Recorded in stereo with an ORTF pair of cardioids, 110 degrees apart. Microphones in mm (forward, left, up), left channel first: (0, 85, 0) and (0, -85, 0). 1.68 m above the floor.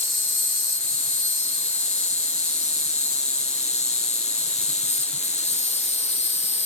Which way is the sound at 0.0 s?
40° left.